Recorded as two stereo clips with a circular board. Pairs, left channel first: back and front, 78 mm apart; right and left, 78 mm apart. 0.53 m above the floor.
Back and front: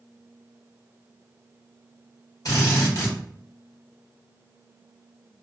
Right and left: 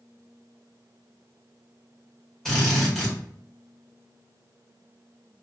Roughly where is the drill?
Behind.